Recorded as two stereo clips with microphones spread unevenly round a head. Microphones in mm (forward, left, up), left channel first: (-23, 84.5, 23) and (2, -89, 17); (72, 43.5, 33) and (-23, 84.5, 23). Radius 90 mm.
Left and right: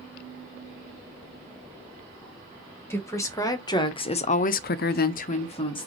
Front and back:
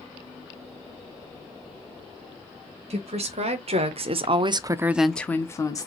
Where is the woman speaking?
175° left, 1.7 m; by 5.9 s 35° left, 1.0 m.